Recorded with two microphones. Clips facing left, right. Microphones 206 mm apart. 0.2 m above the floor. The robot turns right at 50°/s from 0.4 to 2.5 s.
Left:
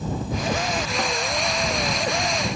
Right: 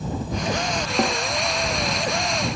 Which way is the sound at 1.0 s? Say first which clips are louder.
Right 9 dB; 40° right (ahead or behind).